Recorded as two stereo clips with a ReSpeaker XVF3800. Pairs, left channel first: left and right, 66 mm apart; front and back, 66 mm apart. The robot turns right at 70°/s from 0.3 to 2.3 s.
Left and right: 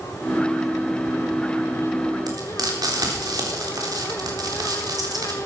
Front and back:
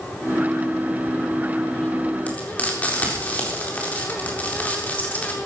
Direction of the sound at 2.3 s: 70° right.